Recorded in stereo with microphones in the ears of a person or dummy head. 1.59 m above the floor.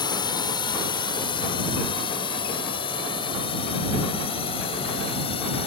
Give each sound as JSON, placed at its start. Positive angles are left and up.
{"t": 0.0, "sound": "a drone", "side_deg": 20}